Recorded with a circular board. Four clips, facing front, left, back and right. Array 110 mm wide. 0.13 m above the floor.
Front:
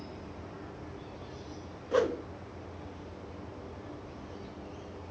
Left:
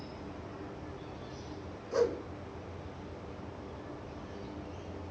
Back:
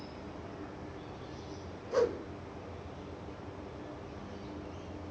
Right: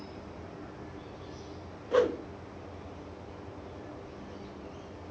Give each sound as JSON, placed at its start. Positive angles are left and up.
{"t": 1.9, "sound": "a whoosh", "azimuth_deg": -50, "distance_m": 0.8}